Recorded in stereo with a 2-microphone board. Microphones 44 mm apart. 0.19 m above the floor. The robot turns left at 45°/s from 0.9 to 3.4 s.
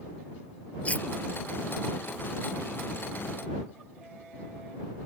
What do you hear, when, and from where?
0.8 s cutlery clinking: 30° left (ahead or behind); by 1.1 s 40° left (ahead or behind)